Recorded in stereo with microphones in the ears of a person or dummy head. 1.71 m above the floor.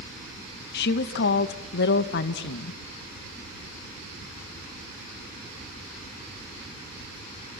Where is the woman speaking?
70° left (ahead or behind), 1.7 m.